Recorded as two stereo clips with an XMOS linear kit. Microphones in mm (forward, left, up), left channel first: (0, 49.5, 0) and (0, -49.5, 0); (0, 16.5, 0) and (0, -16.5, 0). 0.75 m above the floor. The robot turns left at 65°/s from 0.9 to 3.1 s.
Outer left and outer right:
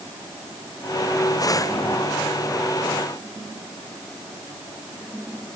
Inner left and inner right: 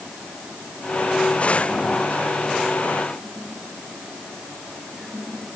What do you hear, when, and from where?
Only background noise.